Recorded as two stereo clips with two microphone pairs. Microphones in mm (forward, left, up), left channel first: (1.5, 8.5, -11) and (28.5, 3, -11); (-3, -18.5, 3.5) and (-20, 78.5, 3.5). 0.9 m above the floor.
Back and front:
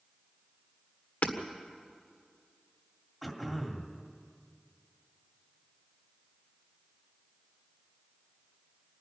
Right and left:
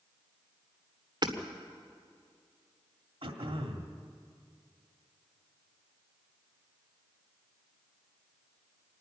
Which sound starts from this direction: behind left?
Hammering, at 1.2 s.